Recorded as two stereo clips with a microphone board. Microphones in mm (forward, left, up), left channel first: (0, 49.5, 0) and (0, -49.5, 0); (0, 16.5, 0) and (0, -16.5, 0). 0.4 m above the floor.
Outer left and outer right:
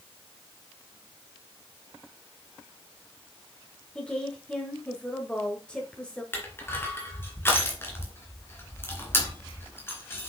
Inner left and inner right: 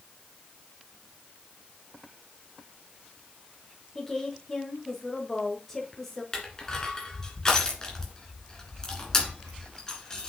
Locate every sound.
4.0 s a woman speaking: 10° left (ahead or behind), 1.3 m
6.3 s crushing: 20° left (ahead or behind), 2.5 m